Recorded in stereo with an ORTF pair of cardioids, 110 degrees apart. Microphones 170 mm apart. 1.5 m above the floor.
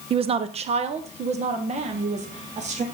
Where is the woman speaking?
35° right, 0.6 m; by 2.8 s 40° right, 2.5 m.